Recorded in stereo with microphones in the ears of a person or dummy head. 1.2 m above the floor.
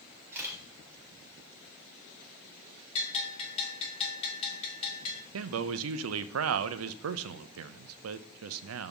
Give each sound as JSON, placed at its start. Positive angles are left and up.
{"t": 0.3, "sound": "a camera shutter", "side_deg": -10, "distance_m": 2.0}
{"t": 3.0, "sound": "a bell", "side_deg": 30, "distance_m": 1.7}
{"t": 5.3, "sound": "a man speaking", "side_deg": -80, "distance_m": 0.5}